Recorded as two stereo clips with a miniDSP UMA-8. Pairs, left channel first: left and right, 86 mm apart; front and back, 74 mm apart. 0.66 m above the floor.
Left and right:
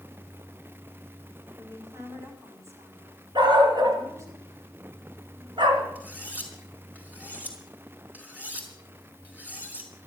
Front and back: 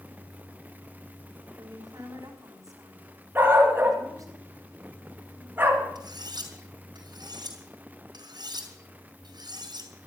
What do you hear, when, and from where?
1.6 s a woman speaking: 145° right, 5.5 m
3.4 s a dog barking: 120° right, 3.5 m
6.0 s cutlery clinking: 160° right, 4.5 m